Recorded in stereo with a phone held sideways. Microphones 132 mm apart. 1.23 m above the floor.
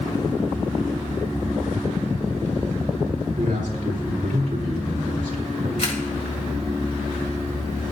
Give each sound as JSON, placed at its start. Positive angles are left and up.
{"t": 3.4, "sound": "a man speaking", "side_deg": -75, "distance_m": 4.5}
{"t": 5.8, "sound": "a camera shutter", "side_deg": 60, "distance_m": 3.0}